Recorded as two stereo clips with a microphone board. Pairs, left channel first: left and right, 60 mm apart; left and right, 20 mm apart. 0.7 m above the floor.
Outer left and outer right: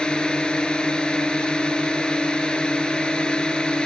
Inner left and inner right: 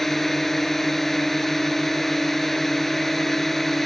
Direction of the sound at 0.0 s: 15° left (ahead or behind).